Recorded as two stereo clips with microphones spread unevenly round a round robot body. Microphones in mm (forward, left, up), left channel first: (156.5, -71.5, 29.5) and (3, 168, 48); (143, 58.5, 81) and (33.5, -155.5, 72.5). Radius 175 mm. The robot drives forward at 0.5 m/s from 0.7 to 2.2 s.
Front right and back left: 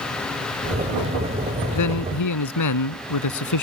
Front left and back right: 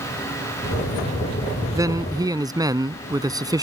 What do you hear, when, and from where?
1.8 s a man speaking: 40° right